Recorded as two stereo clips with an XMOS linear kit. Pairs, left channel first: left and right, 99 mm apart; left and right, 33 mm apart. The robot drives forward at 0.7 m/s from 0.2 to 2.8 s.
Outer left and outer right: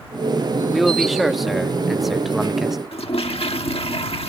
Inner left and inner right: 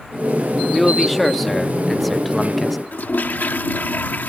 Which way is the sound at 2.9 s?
75° left (ahead or behind).